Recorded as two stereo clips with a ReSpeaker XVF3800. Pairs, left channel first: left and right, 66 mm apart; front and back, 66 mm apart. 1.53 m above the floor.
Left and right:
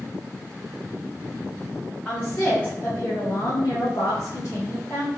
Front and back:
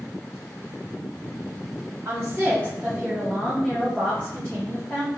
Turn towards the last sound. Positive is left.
turn(degrees=45)